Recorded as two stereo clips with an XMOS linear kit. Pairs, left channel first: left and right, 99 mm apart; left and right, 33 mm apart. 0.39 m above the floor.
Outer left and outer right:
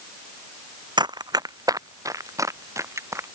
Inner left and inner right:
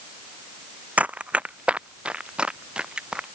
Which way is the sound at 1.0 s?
50° right (ahead or behind).